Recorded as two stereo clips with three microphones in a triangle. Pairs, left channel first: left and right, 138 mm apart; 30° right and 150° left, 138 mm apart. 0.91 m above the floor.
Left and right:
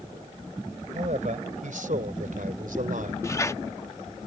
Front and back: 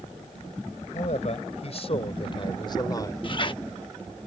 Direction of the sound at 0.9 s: 65° right.